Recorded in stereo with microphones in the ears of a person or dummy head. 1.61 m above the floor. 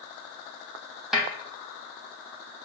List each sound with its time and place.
1.1 s a snare drum: centre (ahead or behind), 0.6 m